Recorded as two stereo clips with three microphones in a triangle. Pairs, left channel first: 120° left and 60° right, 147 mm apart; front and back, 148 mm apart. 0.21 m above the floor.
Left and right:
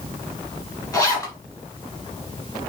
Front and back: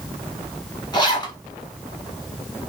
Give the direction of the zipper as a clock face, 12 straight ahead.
10 o'clock.